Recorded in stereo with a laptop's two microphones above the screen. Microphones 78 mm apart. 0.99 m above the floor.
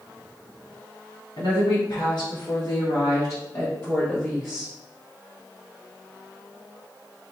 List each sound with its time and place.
1.4 s a woman speaking: 75° left (ahead or behind), 1.7 m; by 4.7 s 5° right (ahead or behind), 1.1 m